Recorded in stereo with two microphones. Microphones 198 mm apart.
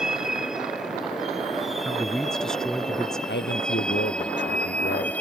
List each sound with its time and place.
0.0 s a vehicle: 5° right (ahead or behind); by 5.2 s 10° left (ahead or behind)
1.9 s a man speaking: 5° left (ahead or behind)
3.3 s a man speaking: 70° left (ahead or behind)